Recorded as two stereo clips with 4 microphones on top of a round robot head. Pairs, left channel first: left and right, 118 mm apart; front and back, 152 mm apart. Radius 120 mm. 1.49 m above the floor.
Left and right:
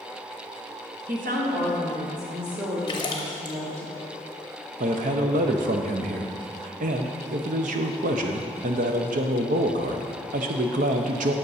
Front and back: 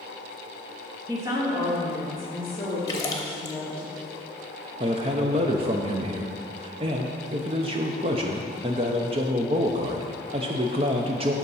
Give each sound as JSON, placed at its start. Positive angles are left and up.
{"t": 1.1, "sound": "a woman speaking", "azimuth_deg": -110, "distance_m": 1.3}
{"t": 2.9, "sound": "a splash", "azimuth_deg": 55, "distance_m": 0.8}
{"t": 4.8, "sound": "a man speaking", "azimuth_deg": -115, "distance_m": 0.5}